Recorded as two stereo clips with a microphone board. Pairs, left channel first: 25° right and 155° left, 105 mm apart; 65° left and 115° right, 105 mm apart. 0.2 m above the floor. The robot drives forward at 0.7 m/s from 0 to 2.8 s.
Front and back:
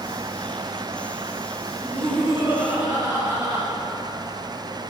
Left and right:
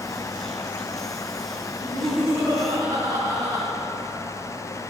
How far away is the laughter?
About 1.6 m.